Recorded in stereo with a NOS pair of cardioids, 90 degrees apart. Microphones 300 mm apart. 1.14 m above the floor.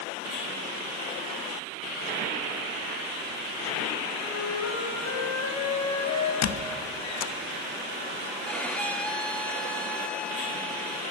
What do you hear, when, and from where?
4.2 s a flute: 60° left, 5 m
6.4 s a squeak: 60° left, 1.2 m
8.4 s a violin: 5° left, 1.4 m